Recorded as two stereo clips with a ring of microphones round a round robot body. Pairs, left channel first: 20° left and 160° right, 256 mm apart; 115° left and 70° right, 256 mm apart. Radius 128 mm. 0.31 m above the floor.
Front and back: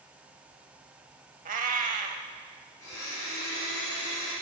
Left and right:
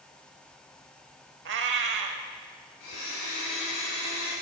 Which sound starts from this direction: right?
A cat meowing, at 1.4 s.